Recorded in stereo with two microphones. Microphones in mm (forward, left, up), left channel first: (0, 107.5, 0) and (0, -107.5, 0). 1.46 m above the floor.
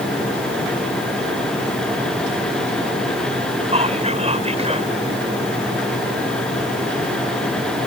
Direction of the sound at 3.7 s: 30° right (ahead or behind).